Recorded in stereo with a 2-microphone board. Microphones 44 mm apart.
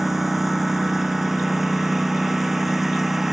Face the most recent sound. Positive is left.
turn(degrees=-5)  # may be behind; listen again after turning